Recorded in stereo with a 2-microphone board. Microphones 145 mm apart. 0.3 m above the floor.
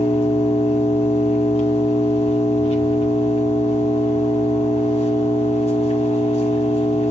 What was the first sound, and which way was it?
An engine running, 45° left (ahead or behind).